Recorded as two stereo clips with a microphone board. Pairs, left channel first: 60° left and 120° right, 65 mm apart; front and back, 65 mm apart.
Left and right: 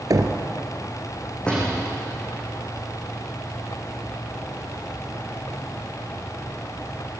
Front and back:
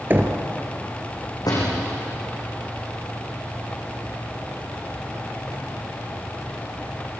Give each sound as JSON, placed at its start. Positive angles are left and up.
{"t": 0.1, "sound": "knocking", "azimuth_deg": -125, "distance_m": 2.0}
{"t": 1.5, "sound": "a door slam", "azimuth_deg": -15, "distance_m": 7.5}